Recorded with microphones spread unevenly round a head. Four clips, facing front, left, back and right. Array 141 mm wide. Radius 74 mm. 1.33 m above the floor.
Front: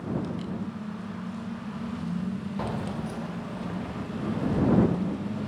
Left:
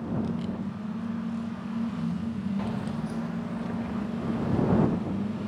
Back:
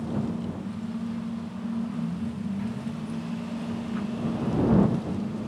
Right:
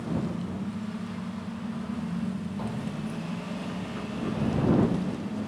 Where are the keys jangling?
5° right; by 4.8 s 45° left.